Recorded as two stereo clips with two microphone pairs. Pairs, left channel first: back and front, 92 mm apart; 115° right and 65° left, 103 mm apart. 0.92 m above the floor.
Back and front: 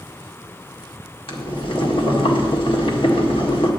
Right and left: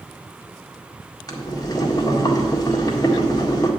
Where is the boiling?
165° right, 1.7 m.